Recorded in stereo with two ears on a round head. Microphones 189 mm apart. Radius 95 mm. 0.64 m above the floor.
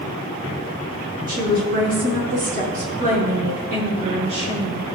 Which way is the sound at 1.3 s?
40° right (ahead or behind).